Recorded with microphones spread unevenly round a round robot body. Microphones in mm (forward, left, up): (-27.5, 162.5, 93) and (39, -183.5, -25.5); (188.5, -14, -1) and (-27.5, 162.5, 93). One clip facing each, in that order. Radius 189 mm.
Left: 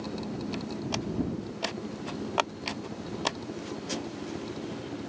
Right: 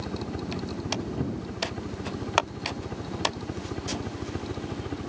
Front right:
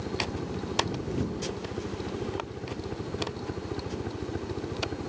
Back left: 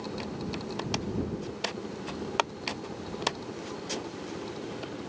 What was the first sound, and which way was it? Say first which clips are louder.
A helicopter: right 1 dB, front right 2 dB; 60° right.